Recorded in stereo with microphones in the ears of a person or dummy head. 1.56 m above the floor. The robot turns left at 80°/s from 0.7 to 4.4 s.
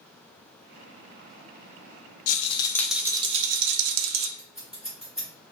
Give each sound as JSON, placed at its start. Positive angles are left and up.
{"t": 2.3, "sound": "a rattle", "azimuth_deg": 45, "distance_m": 0.5}
{"t": 4.4, "sound": "scissors", "side_deg": -5, "distance_m": 1.4}